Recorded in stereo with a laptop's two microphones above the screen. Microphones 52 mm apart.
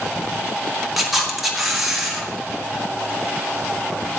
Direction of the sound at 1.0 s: 5° right (ahead or behind).